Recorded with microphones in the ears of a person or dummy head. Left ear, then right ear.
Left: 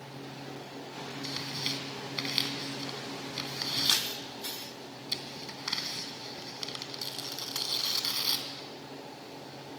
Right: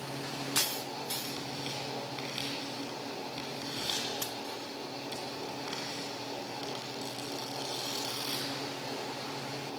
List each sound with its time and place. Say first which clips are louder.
1.2 s tearing paper: left 3 dB; 35° left (ahead or behind), 2.5 m